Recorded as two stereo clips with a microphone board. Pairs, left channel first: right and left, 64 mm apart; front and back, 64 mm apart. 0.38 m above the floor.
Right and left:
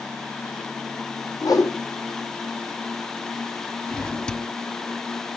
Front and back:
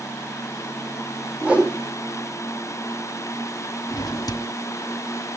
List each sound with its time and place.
1.4 s a whoosh: 110° right, 3.5 m
3.9 s a drawer: 15° right, 0.8 m